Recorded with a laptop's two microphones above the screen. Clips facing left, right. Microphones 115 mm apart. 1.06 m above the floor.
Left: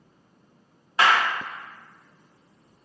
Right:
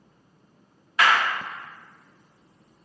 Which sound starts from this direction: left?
A clap, at 1.0 s.